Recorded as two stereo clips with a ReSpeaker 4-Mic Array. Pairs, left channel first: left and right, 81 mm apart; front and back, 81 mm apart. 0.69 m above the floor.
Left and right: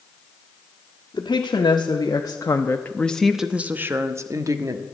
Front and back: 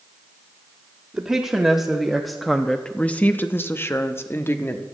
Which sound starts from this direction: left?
A woman speaking, at 1.1 s.